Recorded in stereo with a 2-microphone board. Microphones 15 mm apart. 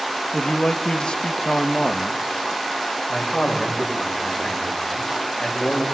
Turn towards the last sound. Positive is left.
turn(degrees=75)  # may be behind; listen again after turning